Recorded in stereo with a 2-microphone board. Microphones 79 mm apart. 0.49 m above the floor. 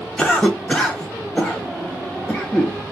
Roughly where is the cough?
Centre.